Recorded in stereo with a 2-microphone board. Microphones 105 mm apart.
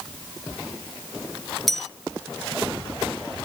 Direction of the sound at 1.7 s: Centre (ahead or behind).